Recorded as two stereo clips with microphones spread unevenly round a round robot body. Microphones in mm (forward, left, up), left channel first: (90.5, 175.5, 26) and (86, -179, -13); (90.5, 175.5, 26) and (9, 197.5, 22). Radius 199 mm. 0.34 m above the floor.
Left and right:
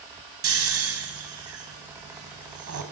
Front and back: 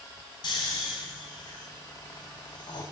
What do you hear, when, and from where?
0.4 s snoring: 50° right, 2 m